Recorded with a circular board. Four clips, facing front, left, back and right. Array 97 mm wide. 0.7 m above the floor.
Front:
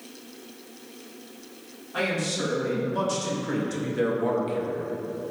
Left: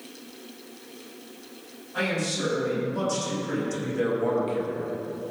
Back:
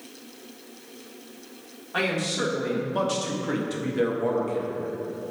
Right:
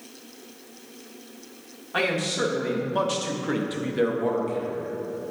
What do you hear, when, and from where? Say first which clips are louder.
1.9 s a man speaking: right 3 dB, back 1 dB; 120° right, 1.9 m; by 4.9 s 50° left, 0.9 m